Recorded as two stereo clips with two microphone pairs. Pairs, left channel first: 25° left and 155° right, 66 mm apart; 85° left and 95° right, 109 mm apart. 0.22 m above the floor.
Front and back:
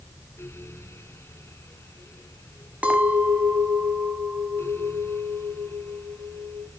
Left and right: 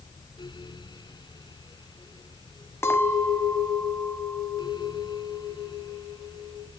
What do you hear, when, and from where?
2.8 s a clink: 145° left, 1.1 m